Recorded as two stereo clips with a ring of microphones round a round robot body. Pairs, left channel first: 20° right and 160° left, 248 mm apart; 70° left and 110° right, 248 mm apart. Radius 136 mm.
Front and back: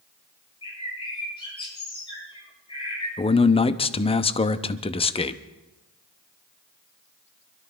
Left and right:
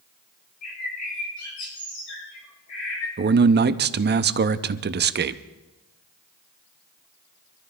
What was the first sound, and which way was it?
A bird, 50° left.